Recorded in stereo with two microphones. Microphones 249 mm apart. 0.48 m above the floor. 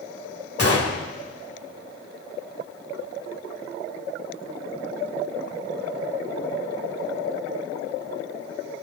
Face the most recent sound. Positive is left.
turn(degrees=60)  # may be behind; listen again after turning